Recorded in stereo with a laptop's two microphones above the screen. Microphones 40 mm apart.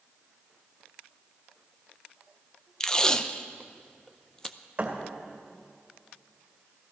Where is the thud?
40° right (ahead or behind), 2 m.